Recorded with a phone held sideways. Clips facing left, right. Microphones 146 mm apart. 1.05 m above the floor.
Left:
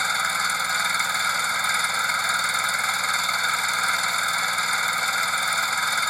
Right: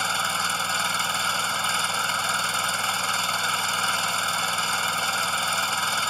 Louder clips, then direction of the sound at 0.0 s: Even; 10° right (ahead or behind).